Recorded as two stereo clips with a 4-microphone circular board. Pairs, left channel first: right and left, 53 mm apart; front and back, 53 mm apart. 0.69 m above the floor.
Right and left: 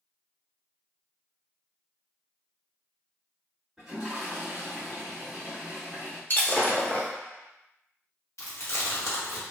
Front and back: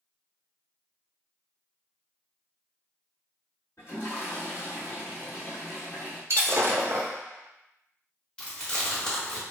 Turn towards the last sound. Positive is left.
turn(degrees=-75)